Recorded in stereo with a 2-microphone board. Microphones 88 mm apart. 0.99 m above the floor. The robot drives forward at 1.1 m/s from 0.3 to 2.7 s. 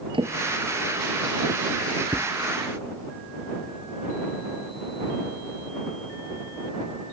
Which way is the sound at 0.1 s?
80° right.